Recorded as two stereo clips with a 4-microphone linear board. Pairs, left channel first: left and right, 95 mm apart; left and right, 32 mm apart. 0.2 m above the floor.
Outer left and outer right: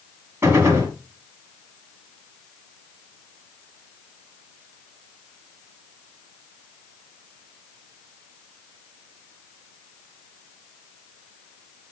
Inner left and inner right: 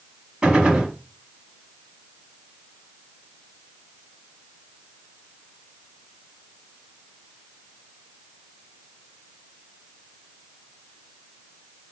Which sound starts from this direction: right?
A gunshot, at 0.4 s.